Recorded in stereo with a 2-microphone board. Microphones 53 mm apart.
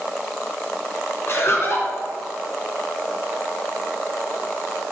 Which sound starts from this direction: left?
Laughter, at 1.3 s.